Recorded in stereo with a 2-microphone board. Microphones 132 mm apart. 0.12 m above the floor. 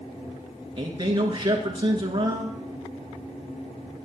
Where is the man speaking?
35° right (ahead or behind), 1.3 m.